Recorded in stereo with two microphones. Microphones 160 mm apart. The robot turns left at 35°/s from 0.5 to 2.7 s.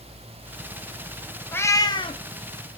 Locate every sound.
1.5 s a cat meowing: 15° left (ahead or behind), 0.5 m; by 2.2 s 35° left (ahead or behind), 0.5 m